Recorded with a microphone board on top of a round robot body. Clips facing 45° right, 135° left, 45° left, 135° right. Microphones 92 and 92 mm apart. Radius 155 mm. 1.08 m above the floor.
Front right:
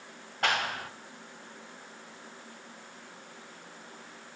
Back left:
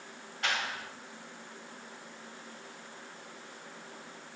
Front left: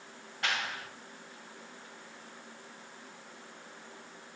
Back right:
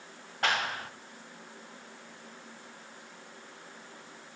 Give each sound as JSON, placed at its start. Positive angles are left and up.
{"t": 0.4, "sound": "a clap", "azimuth_deg": -85, "distance_m": 0.8}